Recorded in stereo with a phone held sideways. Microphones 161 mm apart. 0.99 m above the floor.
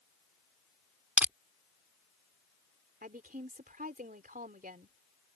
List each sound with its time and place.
1.2 s crushing: 10° right (ahead or behind)
3.0 s a woman speaking: 60° right (ahead or behind)